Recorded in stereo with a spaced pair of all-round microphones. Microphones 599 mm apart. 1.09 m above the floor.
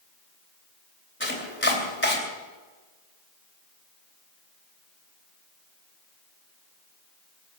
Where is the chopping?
20° left (ahead or behind), 3 m.